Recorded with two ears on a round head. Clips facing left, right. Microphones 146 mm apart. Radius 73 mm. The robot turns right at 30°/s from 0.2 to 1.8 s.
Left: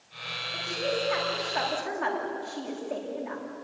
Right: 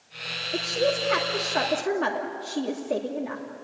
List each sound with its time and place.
0.5 s a woman speaking: 80° right, 2 m; by 3.4 s 45° right, 2 m